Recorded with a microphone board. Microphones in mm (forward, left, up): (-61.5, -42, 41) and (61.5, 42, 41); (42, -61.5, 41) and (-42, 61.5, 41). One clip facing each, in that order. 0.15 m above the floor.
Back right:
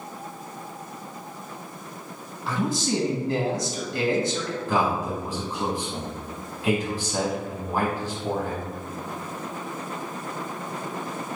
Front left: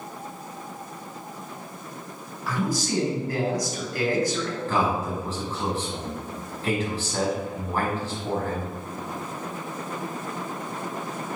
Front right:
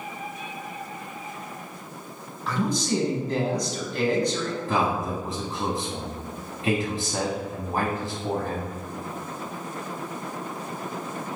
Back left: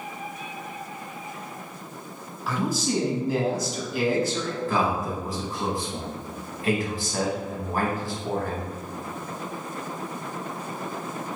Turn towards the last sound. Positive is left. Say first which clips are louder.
# back right 1 dB, even
turn(degrees=-85)